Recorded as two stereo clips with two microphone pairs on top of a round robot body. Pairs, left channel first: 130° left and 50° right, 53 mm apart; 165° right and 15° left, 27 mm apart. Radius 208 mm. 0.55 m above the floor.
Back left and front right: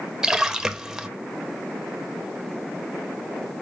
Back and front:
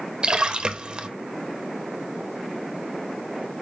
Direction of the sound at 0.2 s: 15° left.